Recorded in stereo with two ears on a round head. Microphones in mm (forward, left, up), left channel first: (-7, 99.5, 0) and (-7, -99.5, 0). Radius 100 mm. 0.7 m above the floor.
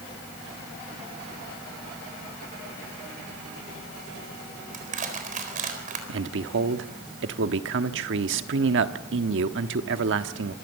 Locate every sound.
4.7 s crushing: 40° right (ahead or behind), 4 m
6.1 s a man speaking: 55° right (ahead or behind), 1.2 m